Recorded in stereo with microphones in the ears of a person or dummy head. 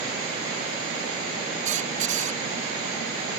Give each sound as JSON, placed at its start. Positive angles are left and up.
{"t": 1.6, "sound": "a squeak", "side_deg": -45}